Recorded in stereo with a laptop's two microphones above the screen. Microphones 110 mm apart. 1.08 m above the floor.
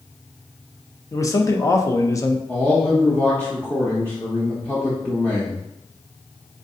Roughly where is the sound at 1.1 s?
Left.